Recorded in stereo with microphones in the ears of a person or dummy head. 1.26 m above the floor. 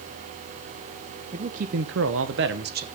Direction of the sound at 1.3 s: 30° right (ahead or behind).